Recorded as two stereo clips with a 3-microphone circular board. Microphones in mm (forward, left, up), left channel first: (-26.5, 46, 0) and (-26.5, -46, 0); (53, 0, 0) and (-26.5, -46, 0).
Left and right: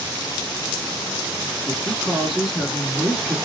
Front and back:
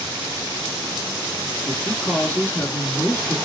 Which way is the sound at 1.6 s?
10° right.